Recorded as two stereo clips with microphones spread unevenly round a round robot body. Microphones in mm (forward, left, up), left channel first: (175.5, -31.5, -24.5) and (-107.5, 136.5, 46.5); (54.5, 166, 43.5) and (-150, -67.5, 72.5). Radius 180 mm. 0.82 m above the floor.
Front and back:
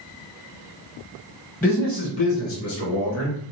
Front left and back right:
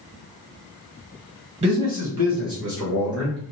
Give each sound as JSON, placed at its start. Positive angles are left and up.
{"t": 1.6, "sound": "a man speaking", "azimuth_deg": -75, "distance_m": 1.0}